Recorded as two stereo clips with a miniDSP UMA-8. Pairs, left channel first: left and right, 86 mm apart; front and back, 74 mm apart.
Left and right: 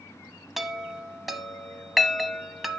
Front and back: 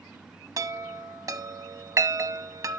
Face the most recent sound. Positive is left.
turn(degrees=180)